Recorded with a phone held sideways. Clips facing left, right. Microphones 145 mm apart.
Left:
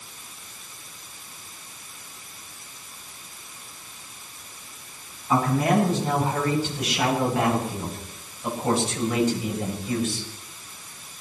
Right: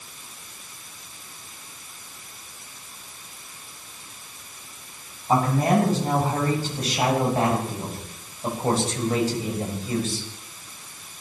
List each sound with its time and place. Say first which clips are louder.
5.3 s a man speaking: right 1 dB; 40° right (ahead or behind), 10 m; by 10.3 s 35° right (ahead or behind), 6.5 m